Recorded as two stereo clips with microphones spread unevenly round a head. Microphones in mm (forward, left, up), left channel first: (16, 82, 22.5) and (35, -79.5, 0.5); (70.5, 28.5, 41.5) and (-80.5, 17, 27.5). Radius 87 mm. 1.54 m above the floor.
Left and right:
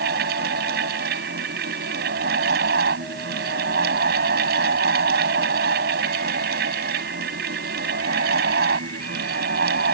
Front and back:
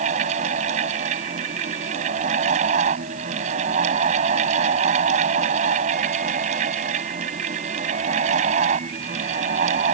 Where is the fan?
125° right.